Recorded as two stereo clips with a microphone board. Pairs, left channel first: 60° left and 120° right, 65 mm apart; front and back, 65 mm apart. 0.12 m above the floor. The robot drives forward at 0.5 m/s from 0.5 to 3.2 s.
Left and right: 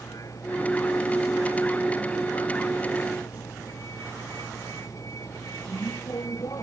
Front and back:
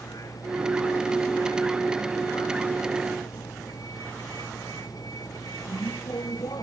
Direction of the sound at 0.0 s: 25° left.